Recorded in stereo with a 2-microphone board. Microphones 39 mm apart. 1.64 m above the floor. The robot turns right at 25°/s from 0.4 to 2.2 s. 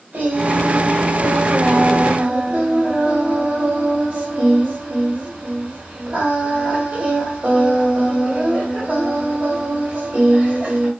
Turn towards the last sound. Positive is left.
turn(degrees=-60)